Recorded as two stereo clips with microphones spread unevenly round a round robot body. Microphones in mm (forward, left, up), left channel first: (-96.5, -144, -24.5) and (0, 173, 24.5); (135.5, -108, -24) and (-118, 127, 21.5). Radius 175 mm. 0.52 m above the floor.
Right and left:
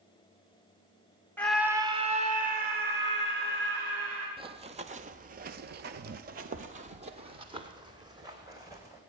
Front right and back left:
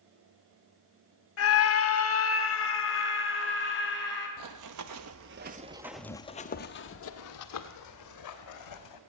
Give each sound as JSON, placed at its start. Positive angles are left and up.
{"t": 1.4, "sound": "a scream", "azimuth_deg": -30, "distance_m": 1.2}
{"t": 4.4, "sound": "running footsteps", "azimuth_deg": 140, "distance_m": 0.9}